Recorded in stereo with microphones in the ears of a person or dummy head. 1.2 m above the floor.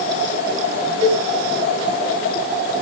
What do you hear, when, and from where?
1.0 s a cowbell: 80° right, 1.1 m